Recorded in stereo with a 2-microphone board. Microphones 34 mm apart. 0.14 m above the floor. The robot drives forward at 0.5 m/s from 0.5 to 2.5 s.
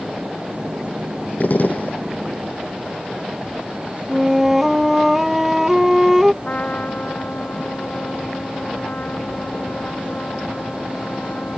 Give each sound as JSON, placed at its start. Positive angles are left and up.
{"t": 1.4, "sound": "a gunshot", "side_deg": 50}
{"t": 4.1, "sound": "a flute", "side_deg": -5}
{"t": 6.4, "sound": "a trumpet", "side_deg": 45}